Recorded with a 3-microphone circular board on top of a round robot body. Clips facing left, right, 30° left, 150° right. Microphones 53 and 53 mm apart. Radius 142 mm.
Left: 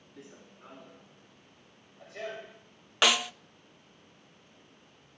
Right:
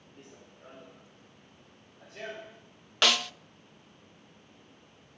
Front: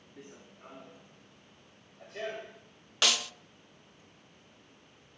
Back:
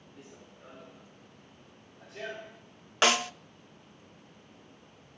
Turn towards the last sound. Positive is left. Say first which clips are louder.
# left 1 dB, back 5 dB
turn(degrees=165)